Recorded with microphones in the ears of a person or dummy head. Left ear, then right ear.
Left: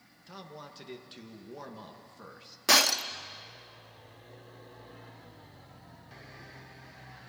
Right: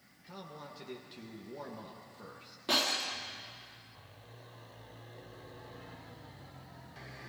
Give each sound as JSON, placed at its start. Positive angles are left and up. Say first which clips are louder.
{"t": 0.3, "sound": "a man speaking", "louder": "left 1 dB", "side_deg": 25, "distance_m": 1.6}
{"t": 2.7, "sound": "breaking glass", "louder": "left 7 dB", "side_deg": 50, "distance_m": 0.9}